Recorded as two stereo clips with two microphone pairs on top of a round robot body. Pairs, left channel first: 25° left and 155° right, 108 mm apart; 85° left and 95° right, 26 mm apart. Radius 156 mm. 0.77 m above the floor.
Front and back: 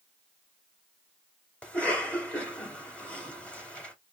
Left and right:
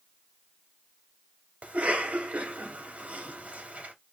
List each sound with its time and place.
1.6 s a cough: 55° right, 2.5 m